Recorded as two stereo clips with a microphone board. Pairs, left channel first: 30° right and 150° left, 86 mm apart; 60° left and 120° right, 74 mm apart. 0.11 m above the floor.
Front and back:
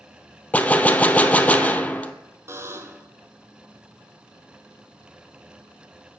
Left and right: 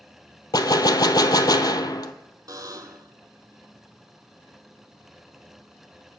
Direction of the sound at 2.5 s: 155° right.